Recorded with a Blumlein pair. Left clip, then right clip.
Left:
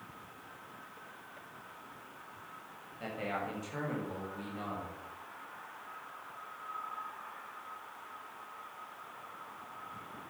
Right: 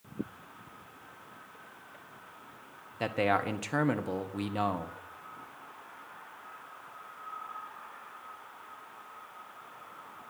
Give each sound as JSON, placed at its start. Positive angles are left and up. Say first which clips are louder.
{"t": 3.0, "sound": "a man speaking", "louder": "right 9 dB", "azimuth_deg": -55, "distance_m": 1.1}